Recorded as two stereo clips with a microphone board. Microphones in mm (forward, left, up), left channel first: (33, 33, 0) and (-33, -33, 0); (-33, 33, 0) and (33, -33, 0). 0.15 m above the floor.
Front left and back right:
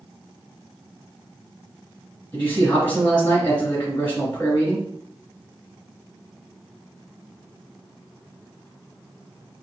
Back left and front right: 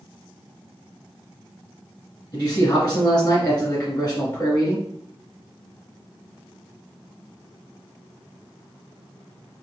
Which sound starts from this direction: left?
A man speaking, at 2.3 s.